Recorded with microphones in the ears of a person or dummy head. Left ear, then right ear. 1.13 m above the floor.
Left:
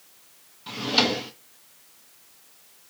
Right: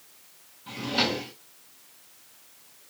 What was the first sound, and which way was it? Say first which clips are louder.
A drawer: left 4 dB; 30° left (ahead or behind).